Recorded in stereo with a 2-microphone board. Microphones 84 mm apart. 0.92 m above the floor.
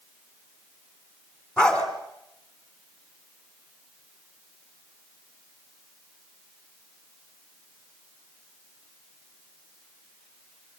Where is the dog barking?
10° left (ahead or behind), 3.5 m.